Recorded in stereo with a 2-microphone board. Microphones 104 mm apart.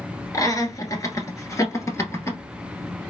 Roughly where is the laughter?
Left.